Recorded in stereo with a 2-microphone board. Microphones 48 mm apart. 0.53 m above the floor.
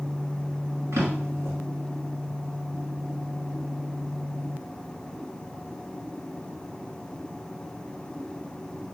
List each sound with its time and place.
0.9 s a drawer: 75° right (ahead or behind), 1.7 m